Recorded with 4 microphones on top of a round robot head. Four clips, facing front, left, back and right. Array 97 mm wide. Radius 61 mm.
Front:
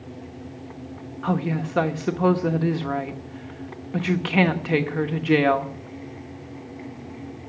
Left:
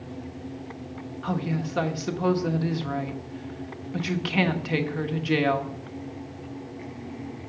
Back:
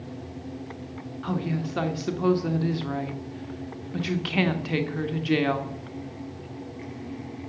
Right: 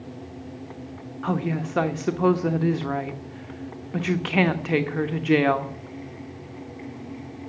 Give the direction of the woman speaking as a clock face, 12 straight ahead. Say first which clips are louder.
Right 3 dB, front 4 dB; 1 o'clock.